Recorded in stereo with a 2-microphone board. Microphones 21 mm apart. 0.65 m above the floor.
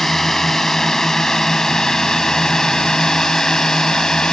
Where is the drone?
20° left (ahead or behind); by 4.3 s 45° left (ahead or behind).